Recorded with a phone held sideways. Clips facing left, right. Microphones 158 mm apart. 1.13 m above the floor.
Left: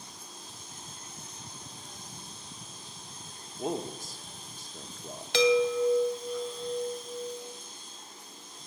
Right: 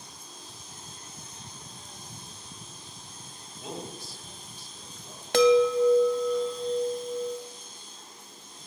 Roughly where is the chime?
Right.